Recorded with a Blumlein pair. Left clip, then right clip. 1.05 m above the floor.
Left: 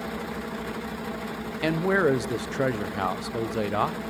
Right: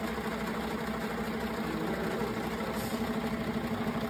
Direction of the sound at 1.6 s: 50° left.